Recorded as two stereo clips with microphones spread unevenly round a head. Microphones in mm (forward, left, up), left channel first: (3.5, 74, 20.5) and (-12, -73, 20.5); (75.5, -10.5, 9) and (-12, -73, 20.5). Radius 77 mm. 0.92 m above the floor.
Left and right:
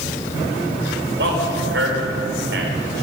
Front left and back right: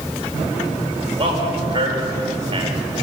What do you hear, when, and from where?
1.2 s a man speaking: 110° right, 4 m